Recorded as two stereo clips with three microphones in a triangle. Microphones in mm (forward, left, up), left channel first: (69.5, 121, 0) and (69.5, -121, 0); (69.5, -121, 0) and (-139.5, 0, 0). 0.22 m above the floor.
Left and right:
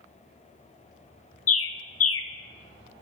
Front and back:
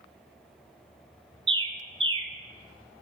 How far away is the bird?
About 0.5 m.